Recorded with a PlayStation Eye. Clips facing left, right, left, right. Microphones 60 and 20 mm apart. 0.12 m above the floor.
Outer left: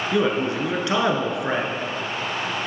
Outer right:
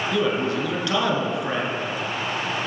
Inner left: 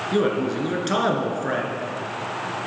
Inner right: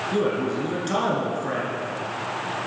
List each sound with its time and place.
0.1 s a man speaking: 25° left (ahead or behind), 1.4 m